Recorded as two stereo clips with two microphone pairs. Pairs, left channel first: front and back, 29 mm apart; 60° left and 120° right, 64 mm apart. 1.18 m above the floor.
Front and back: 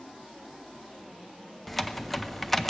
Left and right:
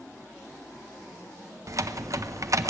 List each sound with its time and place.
1.7 s typing on a keyboard: 80° right, 0.6 m